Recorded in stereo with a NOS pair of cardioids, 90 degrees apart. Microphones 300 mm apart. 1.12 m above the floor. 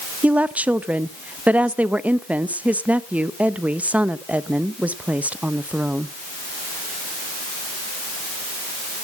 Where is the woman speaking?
5° right, 0.8 m.